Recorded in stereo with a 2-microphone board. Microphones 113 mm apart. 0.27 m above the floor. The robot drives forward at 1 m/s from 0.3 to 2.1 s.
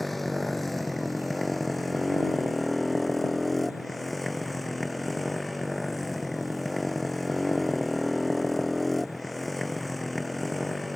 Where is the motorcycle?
Centre (ahead or behind).